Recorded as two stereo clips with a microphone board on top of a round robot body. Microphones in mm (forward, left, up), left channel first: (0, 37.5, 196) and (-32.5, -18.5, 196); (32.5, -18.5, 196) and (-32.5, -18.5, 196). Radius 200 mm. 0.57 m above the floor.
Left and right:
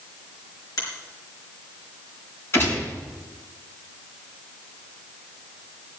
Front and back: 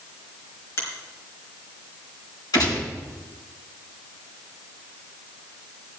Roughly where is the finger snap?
Ahead left.